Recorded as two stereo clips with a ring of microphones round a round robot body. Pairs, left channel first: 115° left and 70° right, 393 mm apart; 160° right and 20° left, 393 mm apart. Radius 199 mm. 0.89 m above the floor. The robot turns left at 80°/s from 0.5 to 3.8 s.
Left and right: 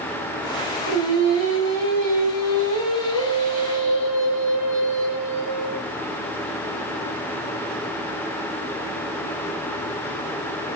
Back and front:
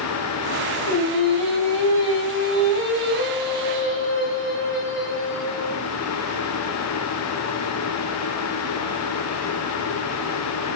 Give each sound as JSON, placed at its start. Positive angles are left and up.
{"t": 0.9, "sound": "singing", "azimuth_deg": -90, "distance_m": 2.0}